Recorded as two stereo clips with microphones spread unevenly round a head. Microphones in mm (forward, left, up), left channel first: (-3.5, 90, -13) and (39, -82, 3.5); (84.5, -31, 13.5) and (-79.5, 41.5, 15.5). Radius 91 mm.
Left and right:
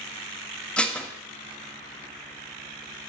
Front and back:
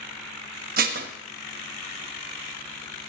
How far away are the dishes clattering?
About 1.2 m.